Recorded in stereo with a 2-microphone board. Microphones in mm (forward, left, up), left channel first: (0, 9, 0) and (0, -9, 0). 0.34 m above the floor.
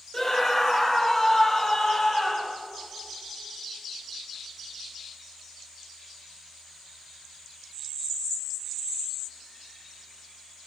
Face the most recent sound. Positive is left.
turn(degrees=20)  # may be behind; listen again after turning